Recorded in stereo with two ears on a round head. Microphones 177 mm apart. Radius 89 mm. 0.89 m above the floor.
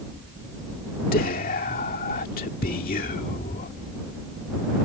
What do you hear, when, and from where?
1.1 s whispering: 50° left (ahead or behind)